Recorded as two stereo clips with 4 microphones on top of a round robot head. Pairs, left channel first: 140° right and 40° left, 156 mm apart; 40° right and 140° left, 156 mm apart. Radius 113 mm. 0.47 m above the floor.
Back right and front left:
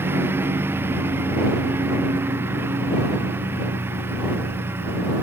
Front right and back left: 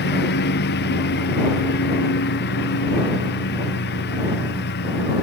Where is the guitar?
I don't hear a guitar.